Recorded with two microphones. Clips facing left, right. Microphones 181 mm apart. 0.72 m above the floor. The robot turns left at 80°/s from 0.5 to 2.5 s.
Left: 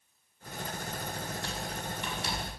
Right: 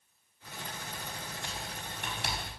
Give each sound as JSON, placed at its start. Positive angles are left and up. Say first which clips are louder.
{"t": 1.4, "sound": "typing on a keyboard", "louder": "left 5 dB", "side_deg": -15, "distance_m": 5.5}